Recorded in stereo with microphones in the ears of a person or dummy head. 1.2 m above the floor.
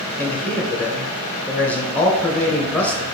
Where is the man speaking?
15° left (ahead or behind), 0.9 m.